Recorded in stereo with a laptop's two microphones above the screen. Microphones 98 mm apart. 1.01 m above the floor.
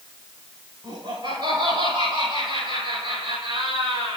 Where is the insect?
I don't hear an insect.